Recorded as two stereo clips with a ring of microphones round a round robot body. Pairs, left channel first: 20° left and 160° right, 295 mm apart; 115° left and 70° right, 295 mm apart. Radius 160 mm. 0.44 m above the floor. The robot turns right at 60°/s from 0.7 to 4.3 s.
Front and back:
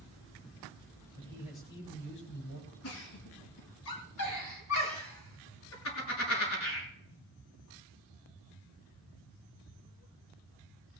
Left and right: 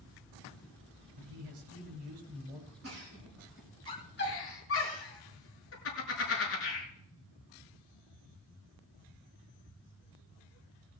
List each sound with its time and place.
1.2 s a man speaking: 90° right, 8.5 m; by 2.7 s 5° left, 8.5 m
2.8 s a giggle: 25° right, 6 m; by 6.9 s 65° left, 6 m